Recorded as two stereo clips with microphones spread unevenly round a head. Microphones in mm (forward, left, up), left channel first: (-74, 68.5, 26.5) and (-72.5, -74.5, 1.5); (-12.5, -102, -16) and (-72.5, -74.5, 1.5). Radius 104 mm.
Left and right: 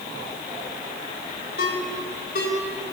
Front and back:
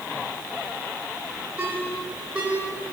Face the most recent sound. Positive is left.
turn(degrees=80)